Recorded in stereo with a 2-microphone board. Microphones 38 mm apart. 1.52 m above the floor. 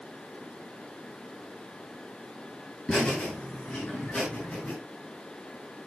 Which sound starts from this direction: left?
Laughter, at 2.9 s.